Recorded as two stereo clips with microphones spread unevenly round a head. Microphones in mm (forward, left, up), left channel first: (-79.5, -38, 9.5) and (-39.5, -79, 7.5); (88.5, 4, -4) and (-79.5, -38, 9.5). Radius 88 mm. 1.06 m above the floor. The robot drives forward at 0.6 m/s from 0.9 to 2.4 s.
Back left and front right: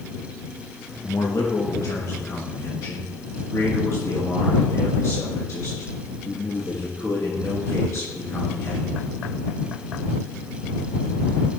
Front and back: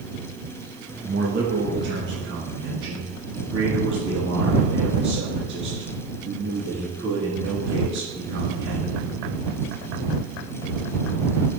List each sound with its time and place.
1.0 s a man speaking: 150° left, 0.9 m; by 9.0 s 165° left, 1.7 m